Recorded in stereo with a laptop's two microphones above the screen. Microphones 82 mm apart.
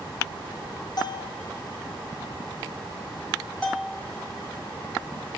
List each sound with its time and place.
1.0 s a bell: 50° left (ahead or behind), 0.7 m
3.6 s a bell: 5° left (ahead or behind), 2 m